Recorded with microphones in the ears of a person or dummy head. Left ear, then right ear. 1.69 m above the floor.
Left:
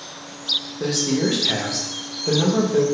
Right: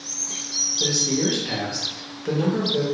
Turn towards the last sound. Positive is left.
turn(degrees=15)  # may be behind; listen again after turning